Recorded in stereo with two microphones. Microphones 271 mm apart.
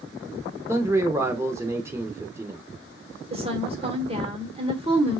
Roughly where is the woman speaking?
Right.